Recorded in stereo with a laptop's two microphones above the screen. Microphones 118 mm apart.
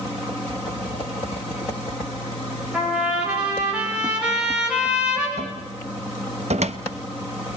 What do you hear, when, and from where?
2.7 s a trumpet: 10° right (ahead or behind), 4 m
5.4 s a cupboard door: 70° right (ahead or behind), 0.8 m